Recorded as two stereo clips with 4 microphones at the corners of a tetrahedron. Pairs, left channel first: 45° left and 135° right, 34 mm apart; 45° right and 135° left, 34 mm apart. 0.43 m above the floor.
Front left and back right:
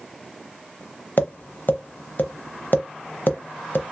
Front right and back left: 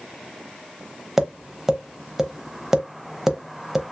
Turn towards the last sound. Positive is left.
turn(degrees=60)